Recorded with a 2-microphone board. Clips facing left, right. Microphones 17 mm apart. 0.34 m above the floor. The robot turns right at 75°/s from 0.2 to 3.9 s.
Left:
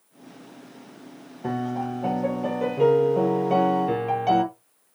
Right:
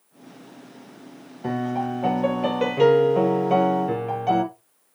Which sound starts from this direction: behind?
A piano, at 1.4 s.